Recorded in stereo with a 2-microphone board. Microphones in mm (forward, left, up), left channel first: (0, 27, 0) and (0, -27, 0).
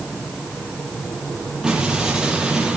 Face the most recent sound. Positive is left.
turn(degrees=-15)  # may be behind; listen again after turning